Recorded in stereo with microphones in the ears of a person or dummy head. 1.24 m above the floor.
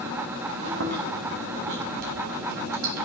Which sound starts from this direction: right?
Chewing, at 0.7 s.